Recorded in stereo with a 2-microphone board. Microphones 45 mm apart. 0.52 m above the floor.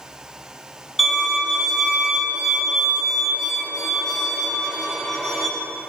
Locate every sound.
1.0 s a violin: 5° left (ahead or behind), 1.7 m